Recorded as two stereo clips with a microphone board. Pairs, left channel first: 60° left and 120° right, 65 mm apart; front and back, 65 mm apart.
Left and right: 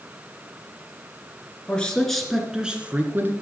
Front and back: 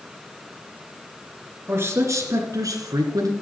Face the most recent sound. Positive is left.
turn(degrees=-175)